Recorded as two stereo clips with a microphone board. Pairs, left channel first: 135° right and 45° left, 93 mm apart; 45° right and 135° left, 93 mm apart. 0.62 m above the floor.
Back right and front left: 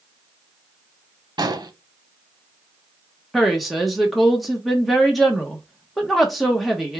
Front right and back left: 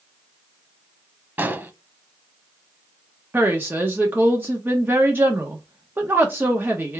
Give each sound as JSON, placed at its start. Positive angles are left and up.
{"t": 1.4, "sound": "an explosion", "azimuth_deg": 70, "distance_m": 0.7}
{"t": 3.3, "sound": "a woman speaking", "azimuth_deg": 135, "distance_m": 0.9}